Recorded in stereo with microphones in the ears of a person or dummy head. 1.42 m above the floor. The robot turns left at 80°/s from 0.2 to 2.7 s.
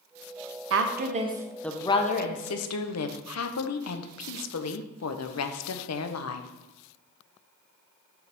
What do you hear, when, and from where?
0.7 s a woman speaking: 100° right, 0.7 m; by 6.5 s 100° left, 0.7 m